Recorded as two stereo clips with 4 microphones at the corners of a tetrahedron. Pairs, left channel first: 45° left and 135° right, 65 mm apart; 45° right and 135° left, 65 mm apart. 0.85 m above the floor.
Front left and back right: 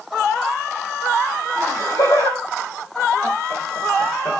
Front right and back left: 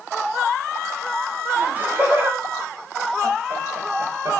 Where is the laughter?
70° left, 6.5 m; by 4.4 s 100° left, 4 m.